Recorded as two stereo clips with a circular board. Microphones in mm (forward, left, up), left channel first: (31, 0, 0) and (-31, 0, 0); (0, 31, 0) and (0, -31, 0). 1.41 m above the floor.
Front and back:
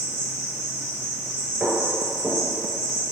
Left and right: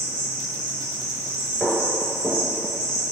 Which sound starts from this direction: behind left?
Footsteps, at 1.6 s.